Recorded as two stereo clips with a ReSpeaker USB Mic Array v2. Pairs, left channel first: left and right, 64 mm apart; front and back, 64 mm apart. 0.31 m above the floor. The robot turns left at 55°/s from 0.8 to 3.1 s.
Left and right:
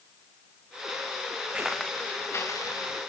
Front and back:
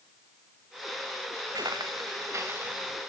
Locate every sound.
1.5 s footsteps: 165° right, 1.9 m; by 3.0 s 95° left, 3 m